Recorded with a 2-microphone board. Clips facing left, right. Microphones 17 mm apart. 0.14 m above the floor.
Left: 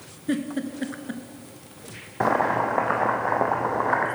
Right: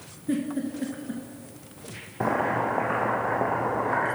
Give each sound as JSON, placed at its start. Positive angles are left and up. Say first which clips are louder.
{"t": 0.3, "sound": "a giggle", "louder": "left 1 dB", "side_deg": 50, "distance_m": 0.8}
{"t": 2.2, "sound": "boiling", "louder": "left 3 dB", "side_deg": 45, "distance_m": 1.4}